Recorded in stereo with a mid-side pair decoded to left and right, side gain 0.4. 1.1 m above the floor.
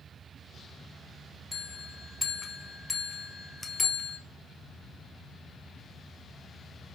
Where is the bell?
30° left, 0.7 m.